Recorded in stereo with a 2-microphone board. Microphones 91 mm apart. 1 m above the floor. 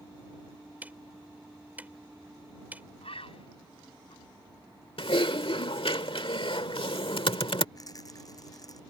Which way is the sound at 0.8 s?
20° right (ahead or behind).